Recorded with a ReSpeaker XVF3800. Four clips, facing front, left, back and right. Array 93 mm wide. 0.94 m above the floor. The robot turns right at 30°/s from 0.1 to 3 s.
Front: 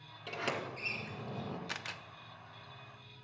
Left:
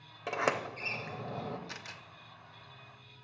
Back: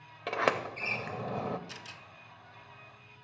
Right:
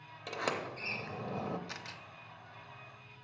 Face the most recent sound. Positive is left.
turn(degrees=40)